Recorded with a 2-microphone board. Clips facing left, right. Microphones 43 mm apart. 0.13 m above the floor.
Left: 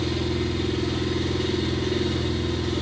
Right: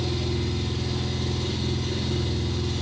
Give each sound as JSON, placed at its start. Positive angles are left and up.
{"t": 0.0, "sound": "an engine running", "side_deg": 85, "distance_m": 6.5}